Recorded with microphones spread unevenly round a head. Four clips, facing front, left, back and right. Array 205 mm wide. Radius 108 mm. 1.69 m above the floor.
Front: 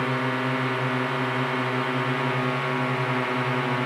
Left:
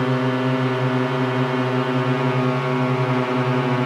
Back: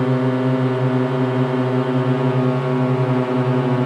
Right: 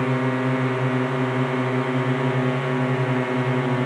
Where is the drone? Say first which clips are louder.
Left 2 dB, back 8 dB; 170° left.